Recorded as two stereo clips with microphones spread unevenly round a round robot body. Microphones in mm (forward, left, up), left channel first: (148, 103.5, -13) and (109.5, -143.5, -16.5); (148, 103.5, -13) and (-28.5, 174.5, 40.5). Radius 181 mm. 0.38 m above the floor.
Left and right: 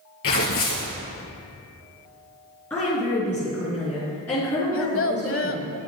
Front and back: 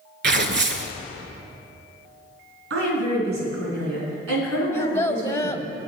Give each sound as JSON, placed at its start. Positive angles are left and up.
{"t": 0.2, "sound": "tearing paper", "azimuth_deg": 135, "distance_m": 1.0}
{"t": 2.7, "sound": "a woman speaking", "azimuth_deg": 165, "distance_m": 4.0}
{"t": 4.7, "sound": "a child speaking", "azimuth_deg": 50, "distance_m": 1.3}